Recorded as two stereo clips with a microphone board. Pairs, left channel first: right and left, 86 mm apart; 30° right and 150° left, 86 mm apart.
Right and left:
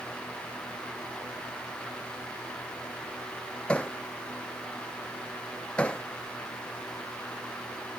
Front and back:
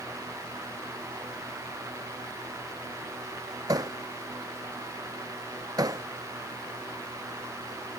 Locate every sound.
3.7 s hammering: 165° right